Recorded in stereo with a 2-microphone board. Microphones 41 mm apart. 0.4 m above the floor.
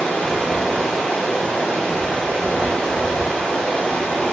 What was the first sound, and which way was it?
Running water, 15° left (ahead or behind).